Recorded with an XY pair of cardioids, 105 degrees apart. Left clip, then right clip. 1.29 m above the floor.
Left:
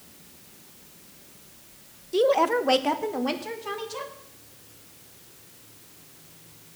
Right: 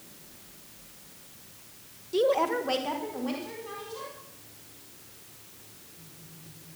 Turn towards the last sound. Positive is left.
turn(degrees=70)